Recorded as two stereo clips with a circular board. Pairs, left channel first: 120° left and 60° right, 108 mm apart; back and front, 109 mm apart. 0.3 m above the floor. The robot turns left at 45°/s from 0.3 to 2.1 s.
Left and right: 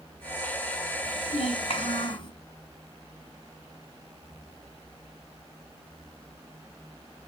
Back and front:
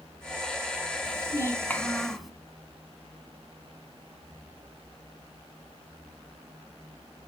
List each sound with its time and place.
1.1 s a child speaking: 135° left, 1.7 m; by 2.3 s 90° left, 1.7 m